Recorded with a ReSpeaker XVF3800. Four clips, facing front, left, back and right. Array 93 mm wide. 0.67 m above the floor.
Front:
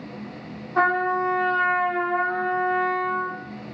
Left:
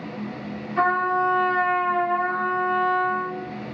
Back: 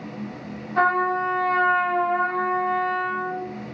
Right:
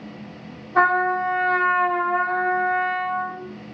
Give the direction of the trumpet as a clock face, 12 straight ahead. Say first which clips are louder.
Right 2 dB, even; 3 o'clock.